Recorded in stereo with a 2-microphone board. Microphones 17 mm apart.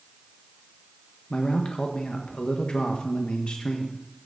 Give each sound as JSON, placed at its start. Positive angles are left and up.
{"t": 1.3, "sound": "a man speaking", "side_deg": 70, "distance_m": 1.1}